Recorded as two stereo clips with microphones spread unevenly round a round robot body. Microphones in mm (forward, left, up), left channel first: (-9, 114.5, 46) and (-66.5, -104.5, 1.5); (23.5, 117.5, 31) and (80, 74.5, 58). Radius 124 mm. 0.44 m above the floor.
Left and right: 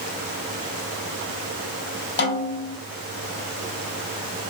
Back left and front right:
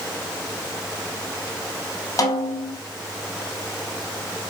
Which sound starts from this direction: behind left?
A snare drum, at 2.2 s.